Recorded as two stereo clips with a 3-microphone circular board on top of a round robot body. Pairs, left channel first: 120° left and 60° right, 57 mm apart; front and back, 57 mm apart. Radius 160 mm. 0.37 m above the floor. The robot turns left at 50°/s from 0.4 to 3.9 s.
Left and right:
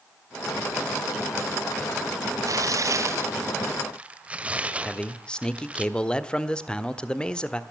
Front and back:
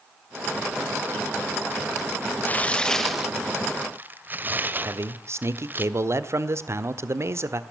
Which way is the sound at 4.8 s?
170° right.